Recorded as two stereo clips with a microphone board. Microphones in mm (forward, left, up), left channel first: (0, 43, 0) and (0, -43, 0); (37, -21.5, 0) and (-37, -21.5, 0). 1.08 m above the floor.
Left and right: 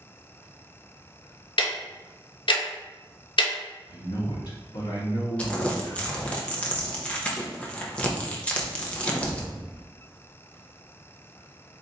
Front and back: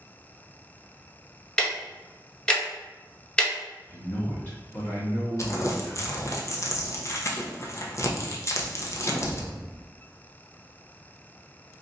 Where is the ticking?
75° left, 0.7 m.